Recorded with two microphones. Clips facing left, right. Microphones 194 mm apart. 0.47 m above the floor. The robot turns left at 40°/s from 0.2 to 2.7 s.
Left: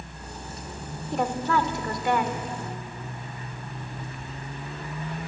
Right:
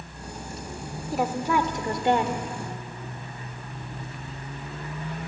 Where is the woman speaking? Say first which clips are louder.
Right 1 dB; 5° right, 1.4 m; by 2.4 s 55° right, 1.4 m.